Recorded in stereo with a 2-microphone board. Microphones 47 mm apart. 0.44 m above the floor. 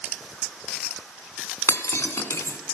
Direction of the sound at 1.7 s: 80° left.